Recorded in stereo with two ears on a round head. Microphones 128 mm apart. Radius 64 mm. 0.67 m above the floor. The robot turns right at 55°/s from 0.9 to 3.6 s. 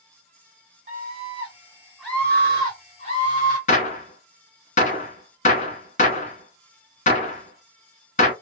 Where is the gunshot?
55° left (ahead or behind), 1.0 m.